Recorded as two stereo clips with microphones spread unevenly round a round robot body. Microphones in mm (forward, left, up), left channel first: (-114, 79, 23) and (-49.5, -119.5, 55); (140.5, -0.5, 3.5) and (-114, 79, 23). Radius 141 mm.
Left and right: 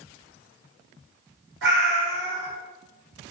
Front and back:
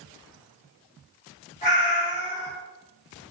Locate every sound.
1.6 s a cat meowing: 85° right, 1.8 m